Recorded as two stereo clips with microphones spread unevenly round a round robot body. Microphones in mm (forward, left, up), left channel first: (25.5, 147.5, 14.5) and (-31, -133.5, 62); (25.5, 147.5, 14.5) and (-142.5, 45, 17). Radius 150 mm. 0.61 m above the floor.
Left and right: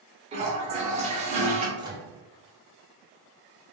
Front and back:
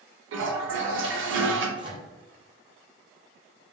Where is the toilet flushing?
170° right, 0.6 m.